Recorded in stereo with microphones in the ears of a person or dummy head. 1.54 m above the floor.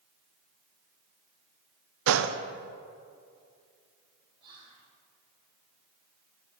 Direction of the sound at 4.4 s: 30° right (ahead or behind).